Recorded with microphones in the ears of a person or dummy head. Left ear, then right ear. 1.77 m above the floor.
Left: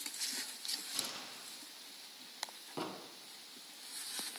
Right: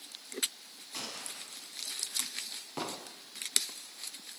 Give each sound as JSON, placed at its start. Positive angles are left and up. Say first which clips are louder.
{"t": 0.9, "sound": "a gunshot", "louder": "right 2 dB", "side_deg": -85, "distance_m": 9.5}
{"t": 2.8, "sound": "an explosion", "louder": "right 3 dB", "side_deg": -20, "distance_m": 0.8}